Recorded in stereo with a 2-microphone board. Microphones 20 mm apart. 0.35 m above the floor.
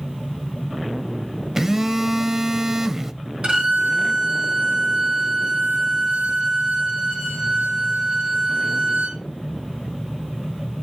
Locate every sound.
1.6 s a phone buzzing: 20° right (ahead or behind), 0.5 m
3.4 s a violin: 60° right (ahead or behind), 4.5 m